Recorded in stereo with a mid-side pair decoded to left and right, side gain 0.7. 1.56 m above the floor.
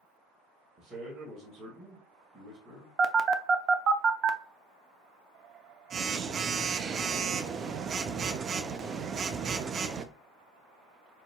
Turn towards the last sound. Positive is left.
turn(degrees=-35)